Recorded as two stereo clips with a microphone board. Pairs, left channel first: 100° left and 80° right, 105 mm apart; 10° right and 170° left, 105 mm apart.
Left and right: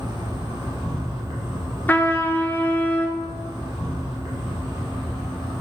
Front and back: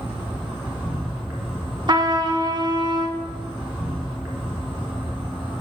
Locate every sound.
0.0 s an insect: 120° right, 3.5 m
1.9 s a trumpet: 160° left, 0.8 m